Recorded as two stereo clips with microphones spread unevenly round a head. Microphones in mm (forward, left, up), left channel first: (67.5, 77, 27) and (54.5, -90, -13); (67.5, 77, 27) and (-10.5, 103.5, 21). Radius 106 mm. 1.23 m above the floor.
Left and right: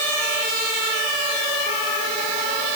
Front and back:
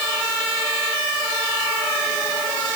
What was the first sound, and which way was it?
Only background noise.